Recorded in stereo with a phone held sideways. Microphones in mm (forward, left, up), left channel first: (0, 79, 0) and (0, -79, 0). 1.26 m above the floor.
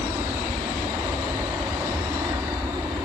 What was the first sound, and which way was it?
An aircraft, 20° right (ahead or behind).